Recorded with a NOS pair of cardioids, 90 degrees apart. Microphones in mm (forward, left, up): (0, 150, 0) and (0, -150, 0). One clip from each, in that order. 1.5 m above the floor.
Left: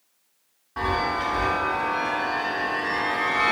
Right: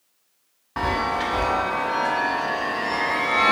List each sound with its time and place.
0.8 s a chime: 35° right, 0.6 m